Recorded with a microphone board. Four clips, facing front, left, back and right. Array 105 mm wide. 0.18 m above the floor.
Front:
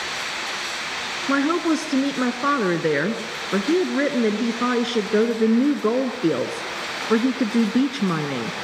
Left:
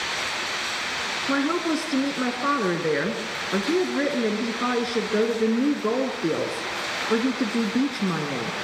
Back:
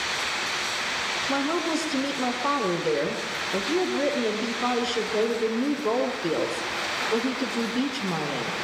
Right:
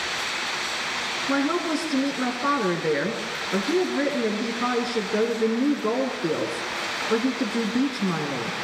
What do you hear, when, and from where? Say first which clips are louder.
1.3 s a woman speaking: even, front 7 dB; 5° left, 2 m